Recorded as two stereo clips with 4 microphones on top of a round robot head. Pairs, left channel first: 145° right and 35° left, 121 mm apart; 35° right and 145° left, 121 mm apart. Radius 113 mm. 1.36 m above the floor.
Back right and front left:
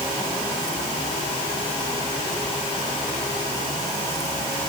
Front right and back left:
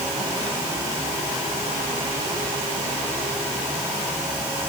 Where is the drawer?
I don't hear a drawer.